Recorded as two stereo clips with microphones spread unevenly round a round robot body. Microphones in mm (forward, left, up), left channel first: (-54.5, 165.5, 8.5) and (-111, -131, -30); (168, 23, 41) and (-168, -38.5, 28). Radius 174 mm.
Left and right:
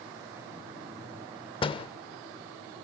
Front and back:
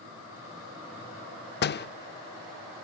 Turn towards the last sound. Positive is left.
turn(degrees=10)